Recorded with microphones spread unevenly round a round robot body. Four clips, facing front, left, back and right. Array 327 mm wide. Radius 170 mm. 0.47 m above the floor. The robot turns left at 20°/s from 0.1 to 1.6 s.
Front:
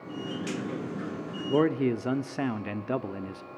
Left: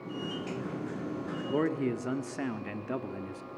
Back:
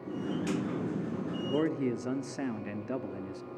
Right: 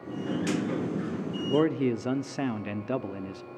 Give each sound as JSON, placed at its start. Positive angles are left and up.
{"t": 1.5, "sound": "a man speaking", "azimuth_deg": -40, "distance_m": 1.2}